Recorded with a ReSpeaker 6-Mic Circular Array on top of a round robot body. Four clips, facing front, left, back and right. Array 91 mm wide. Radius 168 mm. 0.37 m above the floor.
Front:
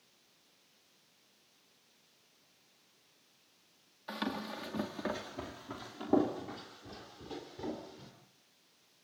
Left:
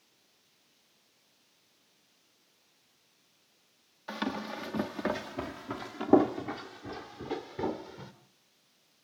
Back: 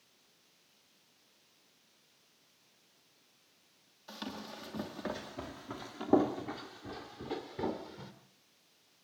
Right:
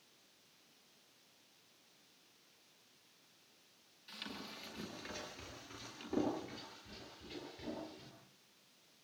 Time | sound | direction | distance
4.1 | running footsteps | 65° left | 2.5 m